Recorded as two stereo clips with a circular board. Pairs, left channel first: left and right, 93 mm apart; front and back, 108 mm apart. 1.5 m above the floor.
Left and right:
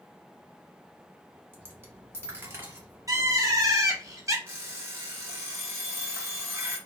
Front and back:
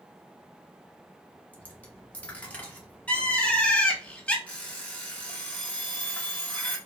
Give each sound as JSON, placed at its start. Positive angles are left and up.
{"t": 1.5, "sound": "a dropped coin", "azimuth_deg": -60, "distance_m": 0.9}
{"t": 3.1, "sound": "a bird", "azimuth_deg": -70, "distance_m": 0.6}
{"t": 4.5, "sound": "an alarm clock", "azimuth_deg": -60, "distance_m": 0.8}